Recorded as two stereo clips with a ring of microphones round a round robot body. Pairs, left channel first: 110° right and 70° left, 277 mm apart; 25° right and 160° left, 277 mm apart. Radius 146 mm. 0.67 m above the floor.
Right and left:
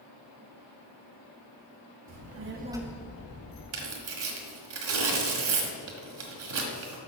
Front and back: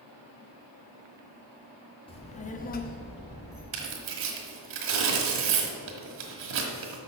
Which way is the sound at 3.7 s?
110° left.